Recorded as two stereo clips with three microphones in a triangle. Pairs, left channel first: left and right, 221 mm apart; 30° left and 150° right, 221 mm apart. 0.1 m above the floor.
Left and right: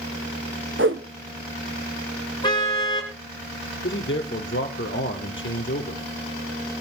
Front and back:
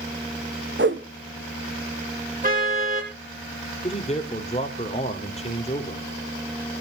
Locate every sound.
0.8 s a whoosh: 115° right, 1.7 m
2.4 s a car horn: 160° left, 10 m
3.8 s a man speaking: 85° left, 3.5 m